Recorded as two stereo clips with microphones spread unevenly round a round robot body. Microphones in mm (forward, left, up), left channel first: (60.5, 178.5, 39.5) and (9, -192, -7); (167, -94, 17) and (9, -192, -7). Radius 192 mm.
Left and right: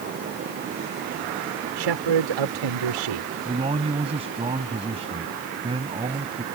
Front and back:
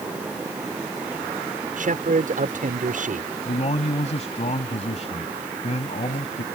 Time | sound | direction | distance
1.8 | a man speaking | 105° right | ?
3.5 | a man speaking | 20° right | ?